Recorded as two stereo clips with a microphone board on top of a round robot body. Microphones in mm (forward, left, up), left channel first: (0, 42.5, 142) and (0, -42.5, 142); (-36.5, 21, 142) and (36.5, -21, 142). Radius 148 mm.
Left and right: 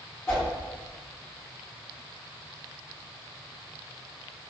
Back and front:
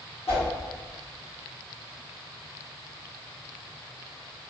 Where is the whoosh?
155° left, 1.2 m.